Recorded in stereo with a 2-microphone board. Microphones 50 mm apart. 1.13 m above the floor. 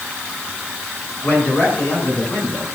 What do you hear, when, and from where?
1.2 s a man speaking: 40° left (ahead or behind), 10 m; by 2.6 s 35° left (ahead or behind), 9.5 m